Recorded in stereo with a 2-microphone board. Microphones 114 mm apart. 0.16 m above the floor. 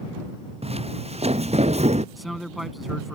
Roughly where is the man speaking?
Centre.